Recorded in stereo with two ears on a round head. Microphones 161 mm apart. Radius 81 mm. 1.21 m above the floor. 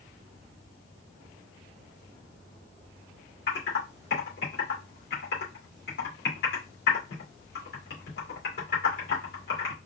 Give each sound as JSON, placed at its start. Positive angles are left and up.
{"t": 3.5, "sound": "typing on a keyboard", "side_deg": 55, "distance_m": 1.8}